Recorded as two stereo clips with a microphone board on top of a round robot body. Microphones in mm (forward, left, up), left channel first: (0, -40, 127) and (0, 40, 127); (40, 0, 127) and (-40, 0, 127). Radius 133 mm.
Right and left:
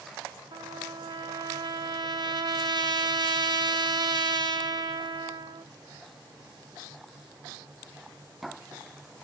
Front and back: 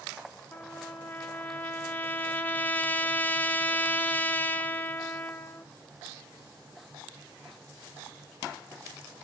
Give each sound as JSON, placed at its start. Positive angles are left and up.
{"t": 0.5, "sound": "a trumpet", "azimuth_deg": 65, "distance_m": 1.6}